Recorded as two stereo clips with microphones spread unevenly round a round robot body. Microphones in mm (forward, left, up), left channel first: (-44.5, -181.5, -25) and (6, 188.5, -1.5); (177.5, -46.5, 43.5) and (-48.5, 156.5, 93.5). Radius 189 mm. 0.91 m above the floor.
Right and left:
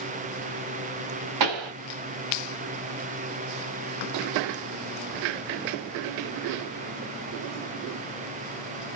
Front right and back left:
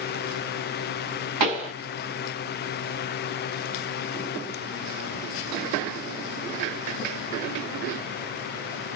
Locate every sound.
1.4 s a pop: 110° left, 1.2 m